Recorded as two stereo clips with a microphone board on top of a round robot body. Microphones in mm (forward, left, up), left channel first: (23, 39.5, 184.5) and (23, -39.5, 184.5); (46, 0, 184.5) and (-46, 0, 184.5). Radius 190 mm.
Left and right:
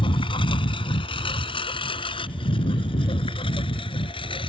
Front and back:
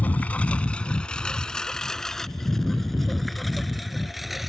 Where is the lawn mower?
75° left; by 4.5 s 90° left.